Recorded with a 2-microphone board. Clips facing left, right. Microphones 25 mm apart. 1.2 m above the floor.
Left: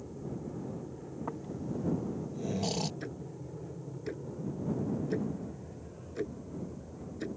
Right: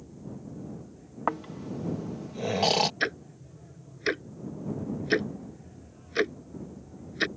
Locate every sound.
0.0 s an aircraft: 70° left (ahead or behind); by 7.4 s 35° left (ahead or behind)
1.3 s snoring: 70° right (ahead or behind)
3.0 s ticking: 70° right (ahead or behind)